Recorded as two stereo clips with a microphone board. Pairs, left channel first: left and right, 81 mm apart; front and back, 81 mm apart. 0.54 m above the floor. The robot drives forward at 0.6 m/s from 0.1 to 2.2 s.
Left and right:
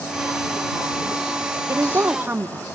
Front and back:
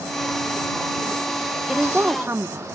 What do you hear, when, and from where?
1.7 s a woman speaking: 100° right, 0.7 m; by 2.6 s 140° right, 0.8 m